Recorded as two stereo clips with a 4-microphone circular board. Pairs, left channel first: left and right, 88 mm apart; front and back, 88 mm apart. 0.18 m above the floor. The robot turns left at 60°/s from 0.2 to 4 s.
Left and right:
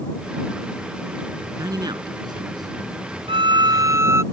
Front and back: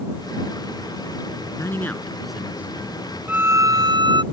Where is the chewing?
I don't hear chewing.